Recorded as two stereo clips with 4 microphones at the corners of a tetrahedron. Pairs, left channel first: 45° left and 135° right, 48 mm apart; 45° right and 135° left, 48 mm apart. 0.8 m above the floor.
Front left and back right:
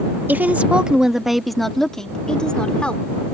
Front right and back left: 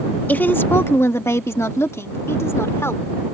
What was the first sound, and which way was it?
A woman speaking, 95° right.